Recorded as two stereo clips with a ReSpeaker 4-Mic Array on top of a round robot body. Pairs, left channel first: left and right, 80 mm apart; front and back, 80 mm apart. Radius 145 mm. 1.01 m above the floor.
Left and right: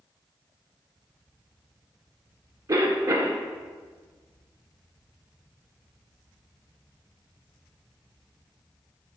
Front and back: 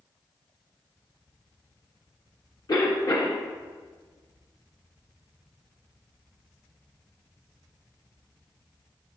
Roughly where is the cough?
Ahead right.